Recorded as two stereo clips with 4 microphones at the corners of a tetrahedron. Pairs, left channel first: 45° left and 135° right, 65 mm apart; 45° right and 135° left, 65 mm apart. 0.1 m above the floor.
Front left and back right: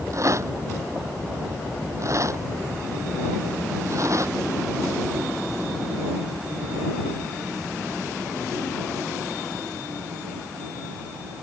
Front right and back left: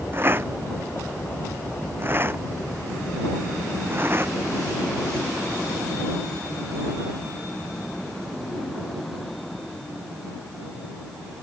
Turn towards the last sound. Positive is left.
turn(degrees=-170)